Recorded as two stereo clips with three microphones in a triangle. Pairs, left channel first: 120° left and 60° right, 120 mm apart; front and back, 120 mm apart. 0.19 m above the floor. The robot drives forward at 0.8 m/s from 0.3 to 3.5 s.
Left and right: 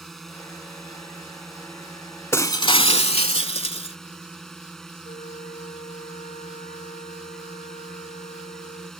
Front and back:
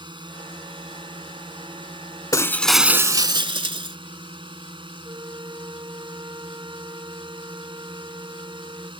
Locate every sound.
0.0 s a drone: 155° right
2.3 s breaking glass: 55° left; by 4.0 s 145° left
5.0 s a flute: 125° left